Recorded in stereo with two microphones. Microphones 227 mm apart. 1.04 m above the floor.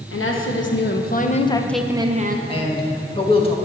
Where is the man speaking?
25° left (ahead or behind), 1.2 m.